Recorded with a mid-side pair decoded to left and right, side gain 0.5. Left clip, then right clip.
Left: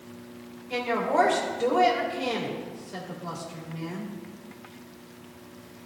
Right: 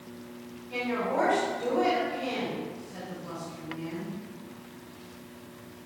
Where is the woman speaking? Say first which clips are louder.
Left 4 dB; 70° left, 2.5 m.